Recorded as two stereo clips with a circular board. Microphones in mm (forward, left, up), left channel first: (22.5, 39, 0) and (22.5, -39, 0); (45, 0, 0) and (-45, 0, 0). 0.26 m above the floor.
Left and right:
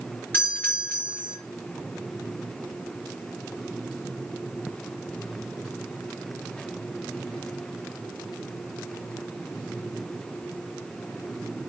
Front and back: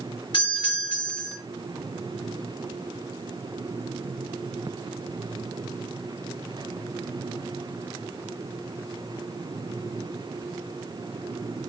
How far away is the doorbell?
About 5 m.